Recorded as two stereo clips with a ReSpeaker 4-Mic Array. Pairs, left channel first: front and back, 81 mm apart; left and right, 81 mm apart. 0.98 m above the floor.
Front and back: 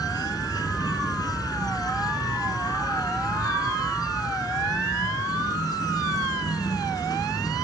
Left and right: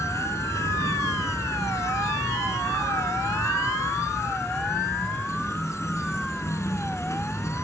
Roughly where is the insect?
Ahead left.